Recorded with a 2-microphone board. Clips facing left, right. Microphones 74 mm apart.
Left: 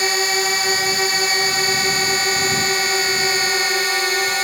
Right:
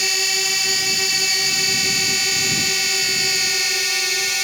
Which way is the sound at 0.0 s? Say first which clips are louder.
Left 6 dB; 40° left (ahead or behind).